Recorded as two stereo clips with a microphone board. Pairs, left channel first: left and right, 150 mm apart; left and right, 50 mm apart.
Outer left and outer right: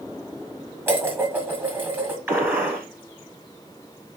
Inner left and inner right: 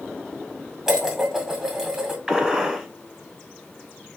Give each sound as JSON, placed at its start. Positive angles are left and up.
{"t": 0.9, "sound": "dishes clattering", "side_deg": -15, "distance_m": 1.2}
{"t": 2.3, "sound": "a gunshot", "side_deg": -15, "distance_m": 1.2}